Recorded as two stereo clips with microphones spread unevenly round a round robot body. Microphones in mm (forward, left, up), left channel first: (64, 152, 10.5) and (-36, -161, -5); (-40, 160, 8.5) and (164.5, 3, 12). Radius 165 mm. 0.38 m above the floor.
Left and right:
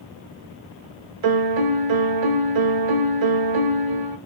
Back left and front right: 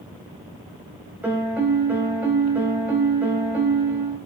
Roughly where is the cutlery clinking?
No cutlery clinking in this recording.